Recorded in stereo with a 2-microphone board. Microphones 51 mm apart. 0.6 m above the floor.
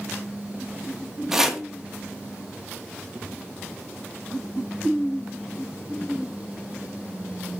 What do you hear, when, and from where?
1.3 s chopping: 10° right (ahead or behind), 1.0 m